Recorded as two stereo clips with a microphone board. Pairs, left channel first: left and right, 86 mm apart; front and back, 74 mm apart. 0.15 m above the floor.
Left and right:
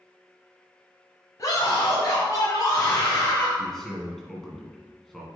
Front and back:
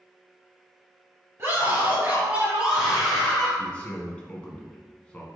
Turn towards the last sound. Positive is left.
turn(degrees=20)